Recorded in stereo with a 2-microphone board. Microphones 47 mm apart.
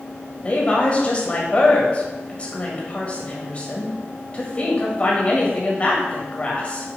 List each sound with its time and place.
0.4 s a woman speaking: 30° left (ahead or behind), 1.7 m